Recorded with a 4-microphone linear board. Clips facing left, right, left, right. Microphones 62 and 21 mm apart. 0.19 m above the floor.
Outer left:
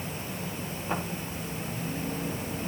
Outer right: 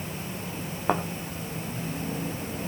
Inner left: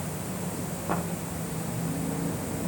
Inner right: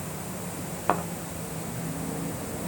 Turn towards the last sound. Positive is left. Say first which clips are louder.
# outer right 7 dB, inner right 5 dB
turn(degrees=-80)